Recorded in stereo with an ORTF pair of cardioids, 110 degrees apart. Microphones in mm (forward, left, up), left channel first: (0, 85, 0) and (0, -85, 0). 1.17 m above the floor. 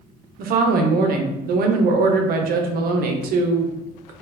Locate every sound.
0.4 s a woman speaking: 60° right, 0.7 m